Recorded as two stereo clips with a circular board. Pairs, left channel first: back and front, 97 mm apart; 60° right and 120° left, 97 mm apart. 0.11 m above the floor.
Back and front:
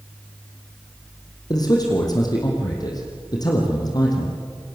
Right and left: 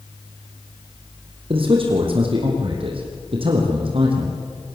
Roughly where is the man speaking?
Behind left.